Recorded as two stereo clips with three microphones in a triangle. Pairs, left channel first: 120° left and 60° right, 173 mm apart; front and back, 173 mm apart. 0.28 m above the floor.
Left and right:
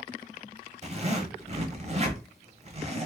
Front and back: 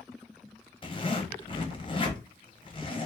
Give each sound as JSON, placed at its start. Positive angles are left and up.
{"t": 0.8, "sound": "a zipper", "azimuth_deg": -40, "distance_m": 1.0}